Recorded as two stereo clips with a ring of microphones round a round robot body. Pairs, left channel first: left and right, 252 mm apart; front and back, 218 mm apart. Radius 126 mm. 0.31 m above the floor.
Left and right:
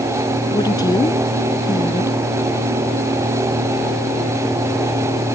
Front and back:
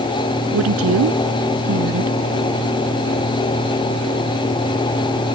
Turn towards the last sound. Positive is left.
turn(degrees=165)